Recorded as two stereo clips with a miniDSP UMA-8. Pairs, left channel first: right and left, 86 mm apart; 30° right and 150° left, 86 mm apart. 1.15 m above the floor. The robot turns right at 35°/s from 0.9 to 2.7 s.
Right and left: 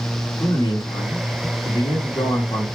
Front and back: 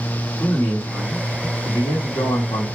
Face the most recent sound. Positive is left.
turn(degrees=-45)